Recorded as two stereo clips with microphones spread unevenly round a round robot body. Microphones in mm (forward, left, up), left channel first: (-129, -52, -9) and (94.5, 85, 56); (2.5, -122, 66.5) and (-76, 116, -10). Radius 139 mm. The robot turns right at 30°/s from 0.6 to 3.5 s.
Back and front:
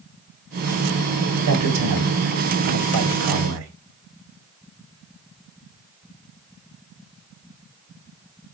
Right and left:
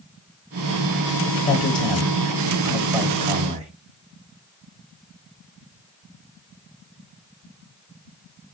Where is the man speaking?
5° left, 1.3 m; by 3.7 s 65° left, 1.3 m.